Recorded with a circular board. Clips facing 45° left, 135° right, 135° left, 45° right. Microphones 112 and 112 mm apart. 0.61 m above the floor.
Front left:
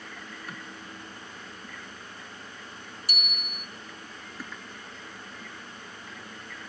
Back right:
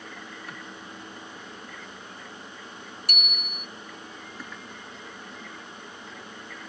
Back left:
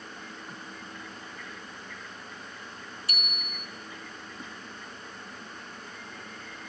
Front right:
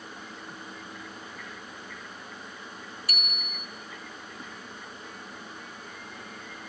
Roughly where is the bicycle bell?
Behind.